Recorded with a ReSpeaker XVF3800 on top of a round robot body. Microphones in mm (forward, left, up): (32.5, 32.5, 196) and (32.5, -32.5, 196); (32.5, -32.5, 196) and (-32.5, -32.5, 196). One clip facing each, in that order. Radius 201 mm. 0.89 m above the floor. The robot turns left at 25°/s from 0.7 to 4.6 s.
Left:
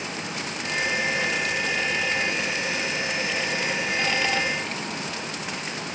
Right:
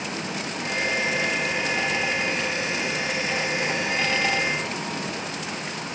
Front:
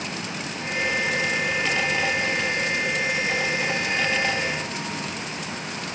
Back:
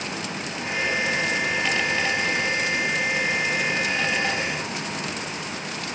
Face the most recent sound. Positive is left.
No sound to turn to.